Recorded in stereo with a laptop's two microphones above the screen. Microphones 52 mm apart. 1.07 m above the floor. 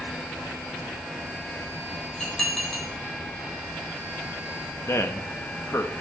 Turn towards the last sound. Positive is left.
turn(degrees=60)  # may be behind; listen again after turning